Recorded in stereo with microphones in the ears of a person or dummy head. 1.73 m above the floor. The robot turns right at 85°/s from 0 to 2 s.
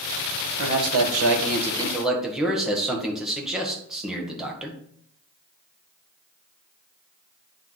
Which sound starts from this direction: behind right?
A man speaking, at 0.6 s.